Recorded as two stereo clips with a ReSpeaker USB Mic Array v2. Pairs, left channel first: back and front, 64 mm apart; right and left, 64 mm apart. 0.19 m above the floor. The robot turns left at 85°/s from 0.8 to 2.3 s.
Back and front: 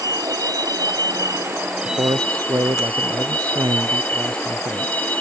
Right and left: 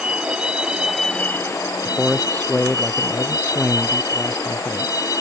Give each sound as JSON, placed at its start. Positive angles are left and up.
{"t": 0.0, "sound": "a vehicle", "azimuth_deg": 15}
{"t": 1.9, "sound": "a man speaking", "azimuth_deg": 15}